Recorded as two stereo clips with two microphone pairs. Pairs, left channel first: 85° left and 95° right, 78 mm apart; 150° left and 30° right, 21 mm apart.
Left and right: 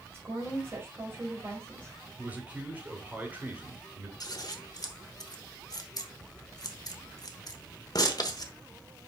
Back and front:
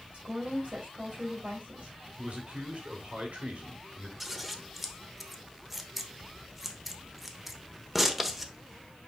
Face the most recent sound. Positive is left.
turn(degrees=55)